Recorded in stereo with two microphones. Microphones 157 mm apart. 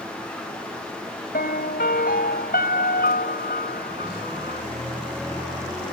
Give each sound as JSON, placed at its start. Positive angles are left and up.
{"t": 1.3, "sound": "a piano", "side_deg": 85}